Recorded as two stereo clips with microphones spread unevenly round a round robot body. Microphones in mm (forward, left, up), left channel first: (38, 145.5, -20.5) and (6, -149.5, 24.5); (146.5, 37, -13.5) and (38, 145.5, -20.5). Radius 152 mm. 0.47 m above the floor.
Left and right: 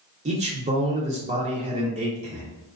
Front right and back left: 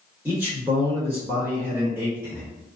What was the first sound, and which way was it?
A man speaking, 160° right.